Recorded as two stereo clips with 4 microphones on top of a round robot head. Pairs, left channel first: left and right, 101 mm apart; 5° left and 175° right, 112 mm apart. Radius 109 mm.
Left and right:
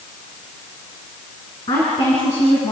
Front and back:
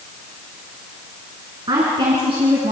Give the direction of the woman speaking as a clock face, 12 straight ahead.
7 o'clock.